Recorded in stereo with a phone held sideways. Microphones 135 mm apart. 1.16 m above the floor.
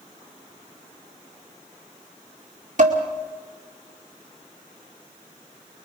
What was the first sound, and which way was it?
Dishes clattering, 60° right (ahead or behind).